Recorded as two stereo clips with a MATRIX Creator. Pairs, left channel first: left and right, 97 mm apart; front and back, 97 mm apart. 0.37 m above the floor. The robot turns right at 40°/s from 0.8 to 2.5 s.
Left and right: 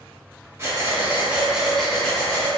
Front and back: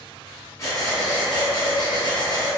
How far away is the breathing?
About 0.8 m.